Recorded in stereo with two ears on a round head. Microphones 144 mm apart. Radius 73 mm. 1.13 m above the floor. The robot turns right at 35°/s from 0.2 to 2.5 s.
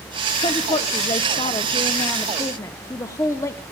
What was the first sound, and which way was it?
A woman speaking, 70° left.